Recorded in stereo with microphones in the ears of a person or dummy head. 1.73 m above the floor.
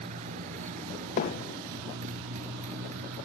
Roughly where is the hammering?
Left.